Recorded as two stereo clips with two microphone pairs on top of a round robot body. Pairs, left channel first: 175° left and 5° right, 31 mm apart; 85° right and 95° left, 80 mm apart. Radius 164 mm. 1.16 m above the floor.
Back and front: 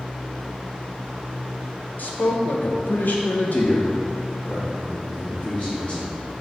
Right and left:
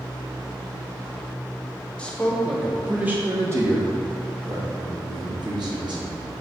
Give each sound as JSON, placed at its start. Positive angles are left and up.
{"t": 2.0, "sound": "a man speaking", "azimuth_deg": -165, "distance_m": 0.9}